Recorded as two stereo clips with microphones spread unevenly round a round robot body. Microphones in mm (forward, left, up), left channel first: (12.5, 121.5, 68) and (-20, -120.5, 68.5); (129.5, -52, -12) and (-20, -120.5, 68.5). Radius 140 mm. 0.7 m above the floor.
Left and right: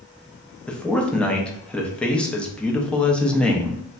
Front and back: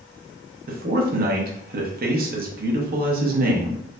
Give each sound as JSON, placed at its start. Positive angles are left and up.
{"t": 0.7, "sound": "a man speaking", "azimuth_deg": 165, "distance_m": 0.5}